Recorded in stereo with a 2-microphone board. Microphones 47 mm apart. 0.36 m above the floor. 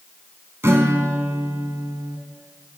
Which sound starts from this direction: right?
A guitar, at 0.6 s.